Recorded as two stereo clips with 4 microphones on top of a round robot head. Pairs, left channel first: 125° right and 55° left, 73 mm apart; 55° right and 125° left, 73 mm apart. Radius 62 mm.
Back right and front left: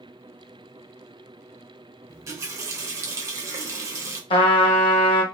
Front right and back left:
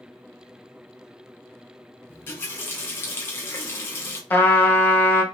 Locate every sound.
2.1 s a running tap: 5° left, 0.8 m
4.3 s a trumpet: 120° right, 1.1 m